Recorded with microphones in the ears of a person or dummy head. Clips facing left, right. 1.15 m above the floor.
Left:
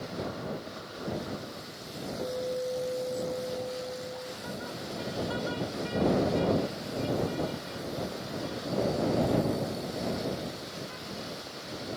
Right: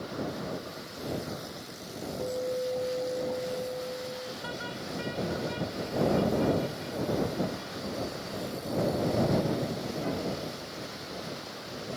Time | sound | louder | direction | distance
2.2 | a guitar | right 1 dB | 10° right (ahead or behind) | ?